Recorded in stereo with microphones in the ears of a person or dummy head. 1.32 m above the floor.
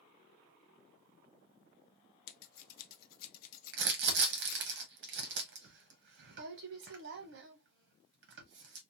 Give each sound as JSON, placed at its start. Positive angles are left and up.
{"t": 2.3, "sound": "scissors", "side_deg": 50, "distance_m": 0.7}
{"t": 3.7, "sound": "crumpling", "side_deg": -65, "distance_m": 0.8}